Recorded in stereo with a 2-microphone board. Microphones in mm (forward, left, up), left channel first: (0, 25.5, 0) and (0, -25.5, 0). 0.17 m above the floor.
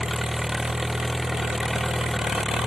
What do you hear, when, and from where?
0.0 s an engine running: 10° right (ahead or behind)